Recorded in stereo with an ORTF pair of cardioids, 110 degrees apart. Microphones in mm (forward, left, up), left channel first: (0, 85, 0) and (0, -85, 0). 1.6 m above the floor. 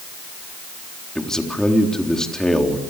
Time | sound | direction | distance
1.1 | a man speaking | 5° left | 3.5 m